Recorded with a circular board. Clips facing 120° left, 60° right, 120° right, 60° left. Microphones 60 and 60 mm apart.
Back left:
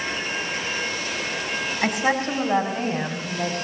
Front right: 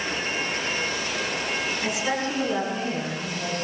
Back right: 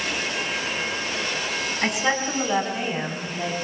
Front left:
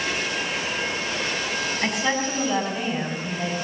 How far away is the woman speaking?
About 6 m.